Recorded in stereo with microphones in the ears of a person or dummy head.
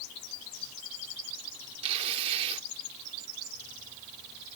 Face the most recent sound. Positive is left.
turn(degrees=-35)  # may be behind; listen again after turning